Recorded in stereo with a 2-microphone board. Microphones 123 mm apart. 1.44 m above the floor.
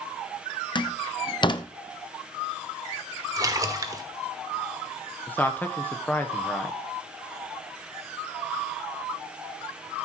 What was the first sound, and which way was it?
A door slam, 40° left (ahead or behind).